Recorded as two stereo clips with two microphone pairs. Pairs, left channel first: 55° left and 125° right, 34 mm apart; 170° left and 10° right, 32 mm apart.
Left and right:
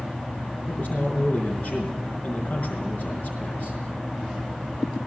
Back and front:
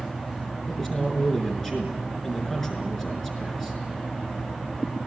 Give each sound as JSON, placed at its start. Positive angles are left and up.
{"t": 0.7, "sound": "a man speaking", "azimuth_deg": 95, "distance_m": 5.0}